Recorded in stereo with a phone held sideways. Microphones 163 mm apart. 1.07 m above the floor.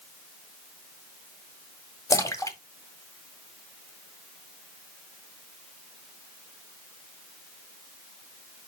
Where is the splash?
20° left (ahead or behind), 1.3 m.